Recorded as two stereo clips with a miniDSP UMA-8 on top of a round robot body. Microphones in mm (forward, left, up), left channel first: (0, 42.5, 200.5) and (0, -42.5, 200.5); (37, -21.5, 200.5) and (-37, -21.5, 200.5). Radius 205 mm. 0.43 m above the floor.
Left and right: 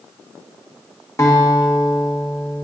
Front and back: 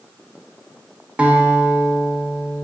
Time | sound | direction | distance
1.2 | a guitar | 115° left | 1.0 m